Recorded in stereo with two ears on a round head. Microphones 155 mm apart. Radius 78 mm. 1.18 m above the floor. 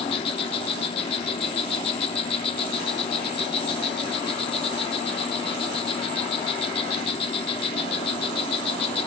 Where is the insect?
30° left (ahead or behind), 0.8 m.